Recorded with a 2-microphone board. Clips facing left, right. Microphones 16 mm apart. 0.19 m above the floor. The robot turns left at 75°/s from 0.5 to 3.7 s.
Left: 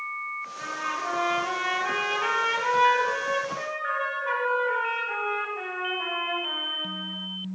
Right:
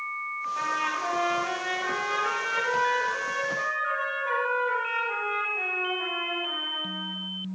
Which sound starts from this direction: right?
A trumpet, at 0.6 s.